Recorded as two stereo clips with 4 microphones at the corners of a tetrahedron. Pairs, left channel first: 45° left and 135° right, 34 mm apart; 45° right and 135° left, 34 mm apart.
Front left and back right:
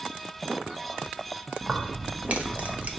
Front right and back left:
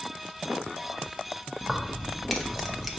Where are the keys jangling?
140° right, 0.8 m.